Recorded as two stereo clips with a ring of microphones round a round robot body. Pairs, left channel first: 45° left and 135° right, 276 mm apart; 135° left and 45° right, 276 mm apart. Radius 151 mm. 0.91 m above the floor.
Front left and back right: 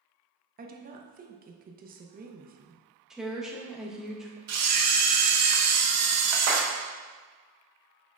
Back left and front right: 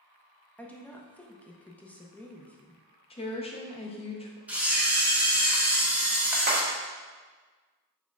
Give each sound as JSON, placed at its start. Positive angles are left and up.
{"t": 0.6, "sound": "a woman speaking", "azimuth_deg": -145, "distance_m": 0.6}
{"t": 3.1, "sound": "a woman speaking", "azimuth_deg": 140, "distance_m": 0.7}
{"t": 4.5, "sound": "a camera shutter", "azimuth_deg": -130, "distance_m": 0.7}
{"t": 6.5, "sound": "a clap", "azimuth_deg": -100, "distance_m": 1.7}